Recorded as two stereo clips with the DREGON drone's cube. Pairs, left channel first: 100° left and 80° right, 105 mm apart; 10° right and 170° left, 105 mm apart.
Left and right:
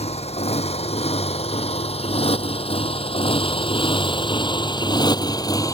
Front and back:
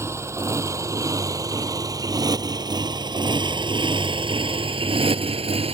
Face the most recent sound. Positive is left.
turn(degrees=155)